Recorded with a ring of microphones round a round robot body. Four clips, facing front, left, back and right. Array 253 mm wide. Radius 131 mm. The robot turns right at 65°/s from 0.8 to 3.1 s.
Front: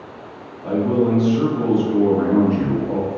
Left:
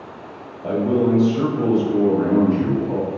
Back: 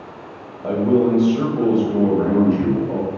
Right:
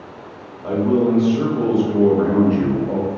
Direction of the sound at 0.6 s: 150° left.